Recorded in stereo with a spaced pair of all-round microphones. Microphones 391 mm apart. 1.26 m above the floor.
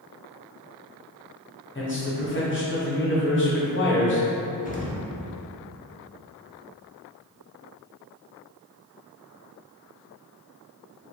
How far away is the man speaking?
About 0.7 m.